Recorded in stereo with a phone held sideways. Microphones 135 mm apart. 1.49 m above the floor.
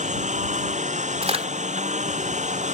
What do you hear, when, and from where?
0.0 s a lawn mower: 60° right (ahead or behind)
1.2 s a crack: 45° right (ahead or behind)